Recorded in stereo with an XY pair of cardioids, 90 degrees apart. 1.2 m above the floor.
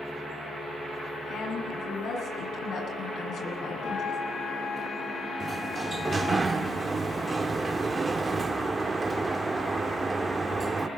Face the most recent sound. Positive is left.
turn(degrees=-35)